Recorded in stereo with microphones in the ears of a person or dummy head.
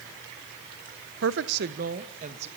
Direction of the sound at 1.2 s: 80° right.